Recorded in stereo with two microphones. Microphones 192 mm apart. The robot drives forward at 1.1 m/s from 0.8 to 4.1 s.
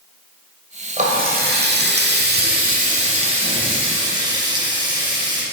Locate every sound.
1.0 s a running tap: 40° right (ahead or behind), 1.6 m; by 5.4 s 25° right (ahead or behind), 2.5 m